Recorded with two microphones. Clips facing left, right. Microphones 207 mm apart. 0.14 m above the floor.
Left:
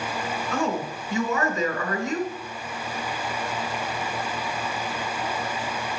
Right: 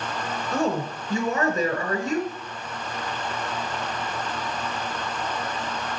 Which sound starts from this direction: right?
A woman speaking, at 0.5 s.